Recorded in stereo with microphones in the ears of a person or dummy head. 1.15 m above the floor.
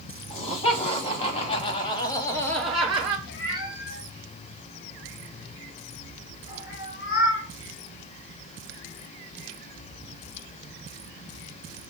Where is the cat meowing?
55° left (ahead or behind), 2 m.